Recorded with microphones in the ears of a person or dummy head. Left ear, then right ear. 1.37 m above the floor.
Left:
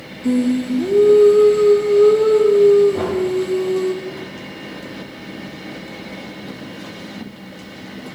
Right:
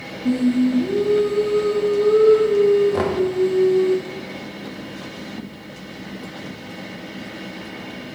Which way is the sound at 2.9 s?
60° right (ahead or behind).